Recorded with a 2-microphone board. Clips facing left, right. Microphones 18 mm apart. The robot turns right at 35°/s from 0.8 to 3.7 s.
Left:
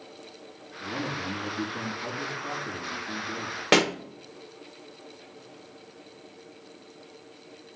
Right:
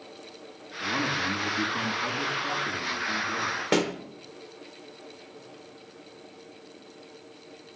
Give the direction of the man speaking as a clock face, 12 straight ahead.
3 o'clock.